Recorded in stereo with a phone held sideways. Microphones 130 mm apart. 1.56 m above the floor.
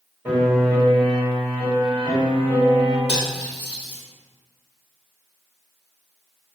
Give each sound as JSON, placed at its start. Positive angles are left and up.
{"t": 0.2, "sound": "a piano", "side_deg": -15, "distance_m": 1.8}
{"t": 3.1, "sound": "cutlery clinking", "side_deg": 45, "distance_m": 1.1}